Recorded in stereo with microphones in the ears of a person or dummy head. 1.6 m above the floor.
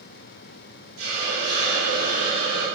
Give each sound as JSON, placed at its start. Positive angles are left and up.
{"t": 1.0, "sound": "a hiss", "side_deg": -70, "distance_m": 2.5}